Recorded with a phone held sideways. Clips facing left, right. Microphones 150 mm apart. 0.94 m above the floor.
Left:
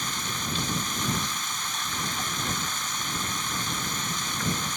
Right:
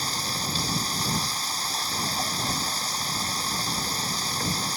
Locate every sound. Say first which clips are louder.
0.0 s running water: right 2 dB; 35° right (ahead or behind)